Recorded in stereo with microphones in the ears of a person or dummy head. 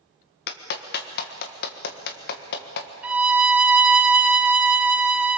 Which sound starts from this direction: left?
A clap, at 0.5 s.